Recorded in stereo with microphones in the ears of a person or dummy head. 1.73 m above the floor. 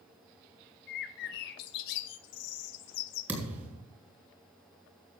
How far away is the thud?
About 5 m.